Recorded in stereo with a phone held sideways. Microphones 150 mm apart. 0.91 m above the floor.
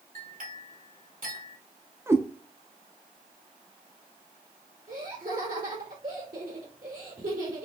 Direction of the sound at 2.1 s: 15° right (ahead or behind).